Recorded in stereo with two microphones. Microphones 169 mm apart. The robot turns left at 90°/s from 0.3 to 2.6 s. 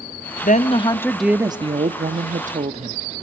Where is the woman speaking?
70° left, 0.8 m; by 3.0 s 125° right, 0.8 m.